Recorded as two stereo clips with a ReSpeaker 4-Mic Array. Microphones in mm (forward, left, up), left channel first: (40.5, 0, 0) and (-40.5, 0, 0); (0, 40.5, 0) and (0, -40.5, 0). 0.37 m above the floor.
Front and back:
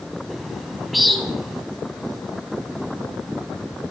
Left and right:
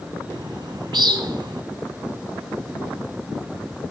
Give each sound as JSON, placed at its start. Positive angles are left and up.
{"t": 0.3, "sound": "a bird", "azimuth_deg": -90, "distance_m": 1.2}